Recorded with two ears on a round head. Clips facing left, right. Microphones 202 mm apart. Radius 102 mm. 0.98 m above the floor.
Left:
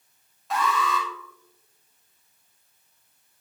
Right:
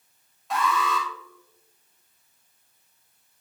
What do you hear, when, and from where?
0.5 s an alarm: centre (ahead or behind), 4.5 m